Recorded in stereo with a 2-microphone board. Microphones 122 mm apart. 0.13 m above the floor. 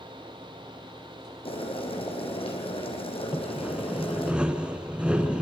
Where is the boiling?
50° left (ahead or behind), 4 m.